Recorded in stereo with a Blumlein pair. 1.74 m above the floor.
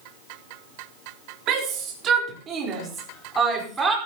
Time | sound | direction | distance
1.5 | a shout | 35° right | 3.5 m